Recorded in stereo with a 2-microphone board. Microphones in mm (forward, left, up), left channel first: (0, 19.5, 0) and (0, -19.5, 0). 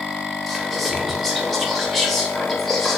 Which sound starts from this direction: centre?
Whispering, at 0.5 s.